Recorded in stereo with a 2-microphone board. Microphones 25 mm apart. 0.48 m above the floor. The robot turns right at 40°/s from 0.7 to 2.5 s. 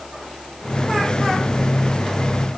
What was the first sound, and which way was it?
Only background noise.